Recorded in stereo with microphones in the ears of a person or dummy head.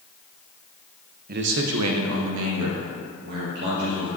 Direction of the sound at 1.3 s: 40° right (ahead or behind).